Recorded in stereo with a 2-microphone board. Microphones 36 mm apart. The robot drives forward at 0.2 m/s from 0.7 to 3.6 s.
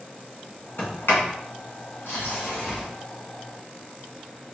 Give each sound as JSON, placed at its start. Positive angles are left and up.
{"t": 0.8, "sound": "a sliding door", "side_deg": 80, "distance_m": 1.7}